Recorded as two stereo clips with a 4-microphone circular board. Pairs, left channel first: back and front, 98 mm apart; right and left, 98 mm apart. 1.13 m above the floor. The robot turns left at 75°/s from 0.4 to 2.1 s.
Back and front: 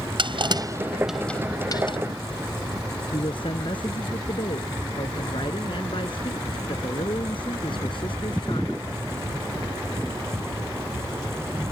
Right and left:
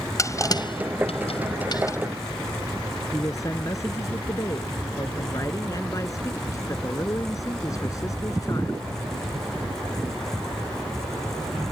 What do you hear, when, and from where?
0.2 s crushing: 35° right; by 2.0 s 150° right
3.1 s a man speaking: 145° right